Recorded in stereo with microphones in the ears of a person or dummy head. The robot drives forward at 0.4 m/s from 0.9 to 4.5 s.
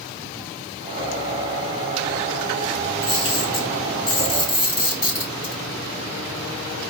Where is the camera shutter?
40° left (ahead or behind), 2.5 m; by 5.5 s 30° left (ahead or behind), 3 m.